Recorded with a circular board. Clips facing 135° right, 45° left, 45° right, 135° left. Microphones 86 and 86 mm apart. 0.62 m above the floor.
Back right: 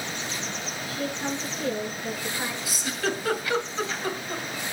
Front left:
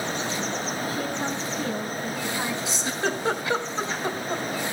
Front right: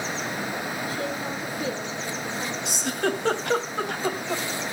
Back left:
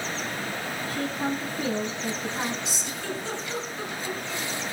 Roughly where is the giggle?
Ahead.